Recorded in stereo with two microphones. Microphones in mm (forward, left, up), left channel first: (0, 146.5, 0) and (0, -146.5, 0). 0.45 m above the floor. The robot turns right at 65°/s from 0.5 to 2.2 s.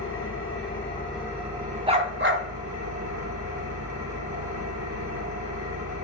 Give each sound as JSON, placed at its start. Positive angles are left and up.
{"t": 0.0, "sound": "an engine running", "azimuth_deg": 135, "distance_m": 4.0}
{"t": 1.9, "sound": "a dog barking", "side_deg": -15, "distance_m": 1.1}